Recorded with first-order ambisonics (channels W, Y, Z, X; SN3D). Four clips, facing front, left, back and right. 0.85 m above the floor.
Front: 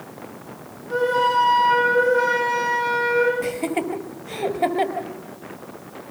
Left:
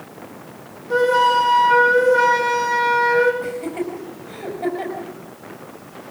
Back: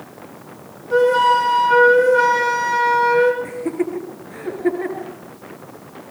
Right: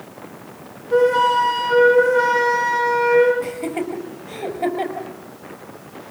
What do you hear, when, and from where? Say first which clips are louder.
0.9 s a flute: even, back 5 dB; 100° left, 9 m
3.4 s laughter: right 1 dB, back 1 dB; 15° right, 5 m